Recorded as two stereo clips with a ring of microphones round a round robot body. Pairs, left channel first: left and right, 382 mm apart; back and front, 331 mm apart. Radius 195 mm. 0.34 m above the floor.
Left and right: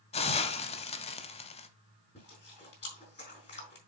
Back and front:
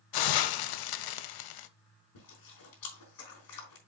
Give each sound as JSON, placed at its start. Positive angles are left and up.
{"t": 0.1, "sound": "a hiss", "azimuth_deg": 165, "distance_m": 0.8}
{"t": 2.1, "sound": "chewing", "azimuth_deg": 165, "distance_m": 5.0}